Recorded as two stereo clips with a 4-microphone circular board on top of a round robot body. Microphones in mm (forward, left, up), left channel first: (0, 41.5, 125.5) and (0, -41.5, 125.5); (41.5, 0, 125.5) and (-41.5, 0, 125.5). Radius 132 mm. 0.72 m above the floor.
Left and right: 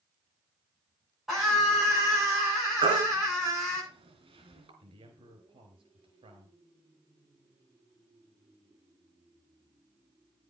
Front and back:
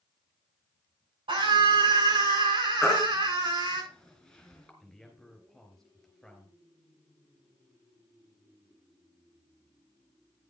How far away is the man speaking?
About 4 m.